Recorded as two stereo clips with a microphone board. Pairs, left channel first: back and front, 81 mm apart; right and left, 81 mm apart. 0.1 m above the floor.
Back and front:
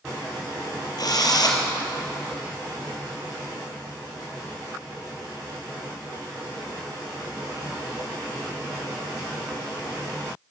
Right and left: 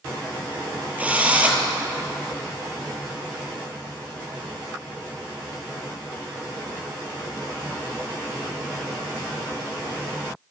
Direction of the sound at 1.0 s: 160° left.